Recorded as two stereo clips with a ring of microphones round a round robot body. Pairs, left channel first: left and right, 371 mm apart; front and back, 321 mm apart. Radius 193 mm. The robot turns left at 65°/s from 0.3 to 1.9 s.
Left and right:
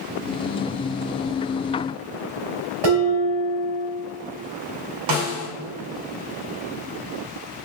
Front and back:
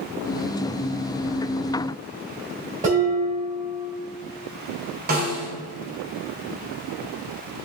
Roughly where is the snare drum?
Behind right.